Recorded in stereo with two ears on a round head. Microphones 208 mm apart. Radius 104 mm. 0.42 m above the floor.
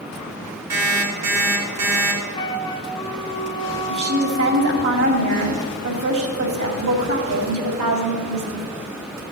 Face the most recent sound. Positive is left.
turn(degrees=-70)  # may be behind; listen again after turning